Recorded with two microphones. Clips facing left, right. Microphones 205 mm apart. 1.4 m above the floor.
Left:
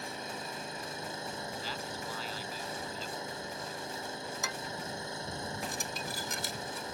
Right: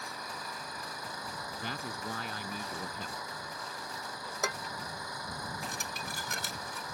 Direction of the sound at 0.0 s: 25° left (ahead or behind).